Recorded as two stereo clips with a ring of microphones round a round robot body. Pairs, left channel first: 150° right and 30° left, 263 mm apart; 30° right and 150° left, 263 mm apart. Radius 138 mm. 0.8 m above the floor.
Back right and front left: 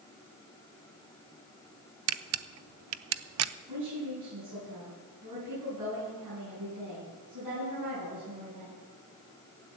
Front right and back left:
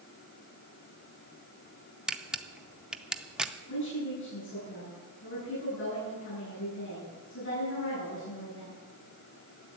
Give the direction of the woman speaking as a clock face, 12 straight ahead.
11 o'clock.